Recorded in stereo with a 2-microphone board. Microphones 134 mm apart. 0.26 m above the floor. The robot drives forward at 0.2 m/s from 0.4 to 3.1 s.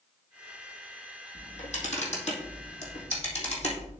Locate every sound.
1.4 s a camera shutter: 65° left (ahead or behind), 2.5 m; by 3.9 s 60° left (ahead or behind), 2.5 m